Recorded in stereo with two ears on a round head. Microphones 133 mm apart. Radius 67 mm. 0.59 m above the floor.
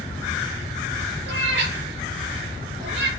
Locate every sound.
1.3 s a cat meowing: 75° right (ahead or behind), 5 m; by 3.1 s 85° right, 5.5 m